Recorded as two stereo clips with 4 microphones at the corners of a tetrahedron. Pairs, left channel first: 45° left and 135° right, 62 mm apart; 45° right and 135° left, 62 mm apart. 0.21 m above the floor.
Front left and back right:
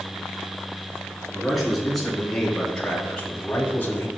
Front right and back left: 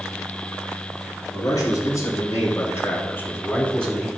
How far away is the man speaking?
About 3 m.